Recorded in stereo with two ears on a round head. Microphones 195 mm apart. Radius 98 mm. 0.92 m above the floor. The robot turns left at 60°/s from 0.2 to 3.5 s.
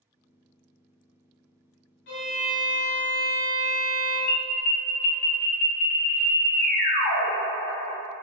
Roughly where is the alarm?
Left.